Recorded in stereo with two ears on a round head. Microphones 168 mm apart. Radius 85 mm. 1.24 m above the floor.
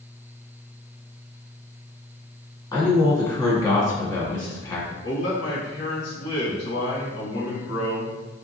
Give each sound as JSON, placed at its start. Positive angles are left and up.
{"t": 2.7, "sound": "a man speaking", "side_deg": 20, "distance_m": 1.7}
{"t": 5.0, "sound": "a man speaking", "side_deg": 65, "distance_m": 1.7}